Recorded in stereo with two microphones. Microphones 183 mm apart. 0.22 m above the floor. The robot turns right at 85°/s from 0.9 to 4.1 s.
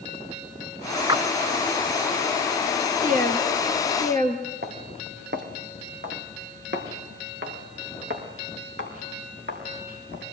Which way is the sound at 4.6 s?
60° right (ahead or behind).